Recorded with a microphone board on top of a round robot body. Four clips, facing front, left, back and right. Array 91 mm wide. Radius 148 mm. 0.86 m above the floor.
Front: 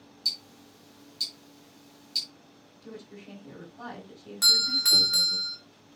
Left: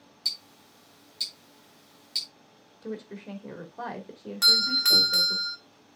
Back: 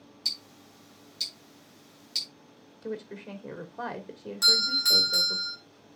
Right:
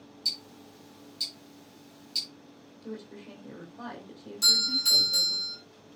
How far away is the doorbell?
About 2.5 m.